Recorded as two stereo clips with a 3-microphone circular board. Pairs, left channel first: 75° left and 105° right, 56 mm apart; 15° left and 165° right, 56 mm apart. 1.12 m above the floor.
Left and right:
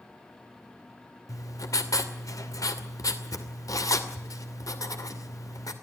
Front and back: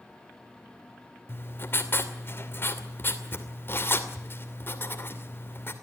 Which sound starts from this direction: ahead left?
Writing, at 1.3 s.